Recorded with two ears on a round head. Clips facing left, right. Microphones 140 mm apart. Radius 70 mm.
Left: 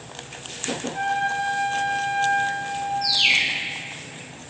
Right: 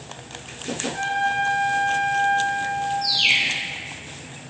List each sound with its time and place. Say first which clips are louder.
0.9 s a trumpet: right 1 dB; 55° right (ahead or behind), 3 m
3.0 s a bird: even; centre (ahead or behind), 2.0 m